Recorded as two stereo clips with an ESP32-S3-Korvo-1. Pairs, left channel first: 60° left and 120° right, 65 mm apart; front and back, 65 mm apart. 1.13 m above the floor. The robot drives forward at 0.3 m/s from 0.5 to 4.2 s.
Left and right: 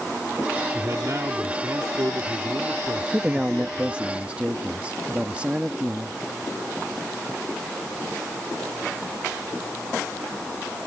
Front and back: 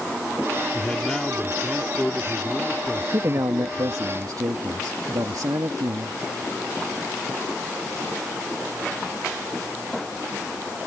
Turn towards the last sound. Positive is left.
turn(degrees=170)